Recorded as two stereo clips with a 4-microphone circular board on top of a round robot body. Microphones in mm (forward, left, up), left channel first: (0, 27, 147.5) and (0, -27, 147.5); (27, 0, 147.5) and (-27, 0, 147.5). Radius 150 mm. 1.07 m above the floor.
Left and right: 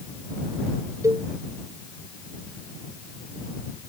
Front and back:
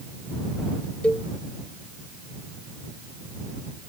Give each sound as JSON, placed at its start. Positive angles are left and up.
{"t": 1.0, "sound": "a cowbell", "azimuth_deg": -70}